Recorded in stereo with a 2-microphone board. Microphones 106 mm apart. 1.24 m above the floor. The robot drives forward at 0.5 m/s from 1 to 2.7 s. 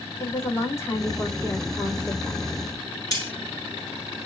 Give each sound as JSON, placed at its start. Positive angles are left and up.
{"t": 0.2, "sound": "a woman speaking", "side_deg": 25, "distance_m": 3.5}
{"t": 3.1, "sound": "cutlery clinking", "side_deg": 35, "distance_m": 3.0}